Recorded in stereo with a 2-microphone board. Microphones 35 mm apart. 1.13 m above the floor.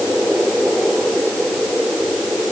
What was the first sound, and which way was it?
Only background noise.